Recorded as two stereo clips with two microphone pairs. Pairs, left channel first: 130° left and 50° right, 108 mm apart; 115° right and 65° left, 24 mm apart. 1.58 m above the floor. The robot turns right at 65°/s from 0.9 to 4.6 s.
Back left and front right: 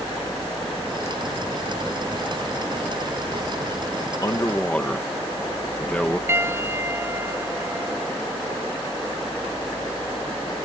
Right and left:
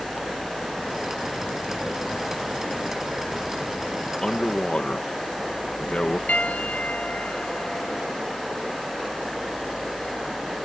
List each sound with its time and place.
4.2 s a man speaking: straight behind; by 6.2 s 155° right
6.3 s a piano: 120° right